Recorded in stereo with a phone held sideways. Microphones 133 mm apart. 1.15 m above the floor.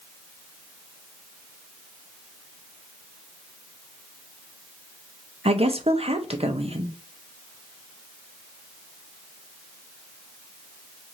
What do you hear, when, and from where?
5.5 s a woman speaking: 45° right (ahead or behind), 0.8 m